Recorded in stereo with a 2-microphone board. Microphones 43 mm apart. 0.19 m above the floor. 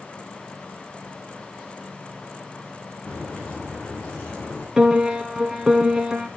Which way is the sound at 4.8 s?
10° right (ahead or behind).